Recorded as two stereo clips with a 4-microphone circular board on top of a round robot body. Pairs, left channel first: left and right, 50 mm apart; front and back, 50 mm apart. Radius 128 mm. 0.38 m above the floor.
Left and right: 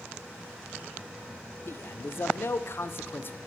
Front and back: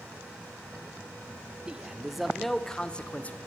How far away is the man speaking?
About 1.4 m.